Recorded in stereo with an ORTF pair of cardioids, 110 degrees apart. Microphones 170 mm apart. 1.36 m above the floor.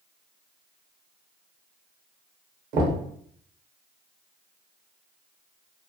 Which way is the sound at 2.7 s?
65° right.